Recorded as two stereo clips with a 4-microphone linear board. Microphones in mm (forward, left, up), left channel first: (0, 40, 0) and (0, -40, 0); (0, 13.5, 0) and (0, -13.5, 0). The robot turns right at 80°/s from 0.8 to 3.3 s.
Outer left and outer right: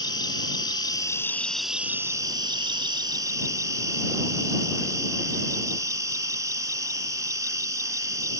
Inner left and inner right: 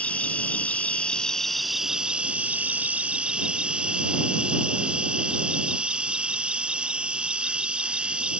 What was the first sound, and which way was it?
An insect, 115° left.